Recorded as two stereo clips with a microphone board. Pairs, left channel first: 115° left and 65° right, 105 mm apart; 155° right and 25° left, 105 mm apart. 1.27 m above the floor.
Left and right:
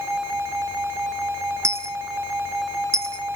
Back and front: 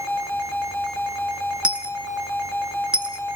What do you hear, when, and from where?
1.6 s a dropped coin: 45° right, 0.7 m